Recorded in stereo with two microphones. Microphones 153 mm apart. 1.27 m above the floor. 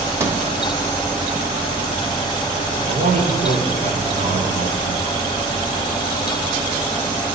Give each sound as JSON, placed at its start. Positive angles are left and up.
{"t": 0.2, "sound": "a sliding door", "side_deg": -20, "distance_m": 1.0}
{"t": 2.9, "sound": "a man speaking", "side_deg": -75, "distance_m": 5.0}